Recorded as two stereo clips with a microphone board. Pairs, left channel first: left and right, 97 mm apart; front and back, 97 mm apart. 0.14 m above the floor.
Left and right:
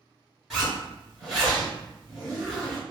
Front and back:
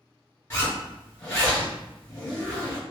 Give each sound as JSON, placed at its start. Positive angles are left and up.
{"t": 0.5, "sound": "a zipper", "azimuth_deg": -5, "distance_m": 1.9}